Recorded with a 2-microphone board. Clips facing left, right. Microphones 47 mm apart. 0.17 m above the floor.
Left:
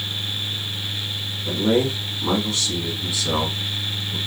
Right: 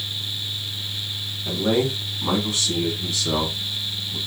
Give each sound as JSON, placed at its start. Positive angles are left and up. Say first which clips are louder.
{"t": 1.4, "sound": "a man speaking", "louder": "left 2 dB", "side_deg": -20, "distance_m": 1.4}